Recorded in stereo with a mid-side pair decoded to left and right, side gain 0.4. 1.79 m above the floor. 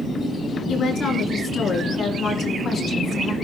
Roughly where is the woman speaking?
Ahead left.